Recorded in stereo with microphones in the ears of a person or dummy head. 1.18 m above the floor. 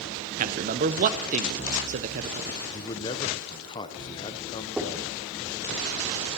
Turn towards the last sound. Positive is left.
turn(degrees=-5)  # may be behind; listen again after turning